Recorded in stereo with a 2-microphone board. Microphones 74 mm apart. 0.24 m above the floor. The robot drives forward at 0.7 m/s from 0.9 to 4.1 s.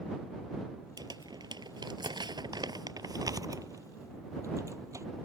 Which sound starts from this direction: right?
Crumpling, at 1.0 s.